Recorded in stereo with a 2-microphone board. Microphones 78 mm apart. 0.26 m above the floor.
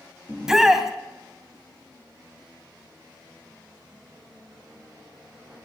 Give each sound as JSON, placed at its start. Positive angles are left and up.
{"t": 0.3, "sound": "a shout", "side_deg": -5, "distance_m": 2.0}